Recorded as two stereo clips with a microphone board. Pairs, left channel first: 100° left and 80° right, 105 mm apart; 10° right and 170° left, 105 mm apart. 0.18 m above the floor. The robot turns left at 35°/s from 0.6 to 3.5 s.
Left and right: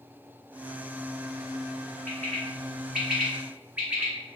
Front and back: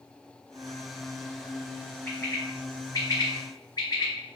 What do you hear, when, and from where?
2.1 s a bird: 35° left, 1.1 m; by 4.1 s 15° right, 1.1 m